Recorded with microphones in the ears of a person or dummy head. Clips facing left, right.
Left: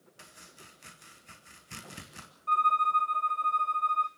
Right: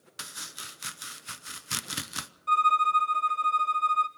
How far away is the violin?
About 0.5 m.